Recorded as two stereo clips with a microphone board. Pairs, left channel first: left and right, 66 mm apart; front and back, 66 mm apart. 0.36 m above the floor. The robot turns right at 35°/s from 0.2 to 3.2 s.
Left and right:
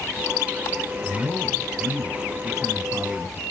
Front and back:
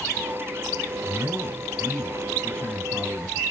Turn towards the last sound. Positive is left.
turn(degrees=-50)